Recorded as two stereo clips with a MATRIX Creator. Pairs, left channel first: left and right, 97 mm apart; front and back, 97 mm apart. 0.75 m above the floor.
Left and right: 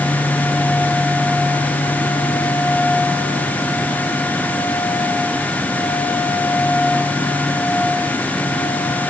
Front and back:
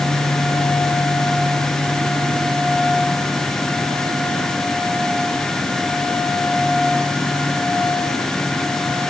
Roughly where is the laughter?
No laughter in this recording.